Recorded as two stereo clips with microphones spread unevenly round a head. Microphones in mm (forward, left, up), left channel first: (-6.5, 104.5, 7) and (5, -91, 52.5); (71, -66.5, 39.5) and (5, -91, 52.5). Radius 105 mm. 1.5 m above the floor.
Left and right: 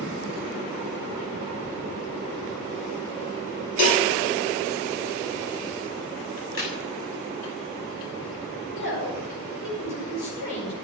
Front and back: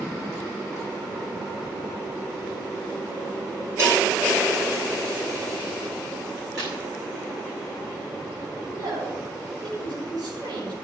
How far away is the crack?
About 6 m.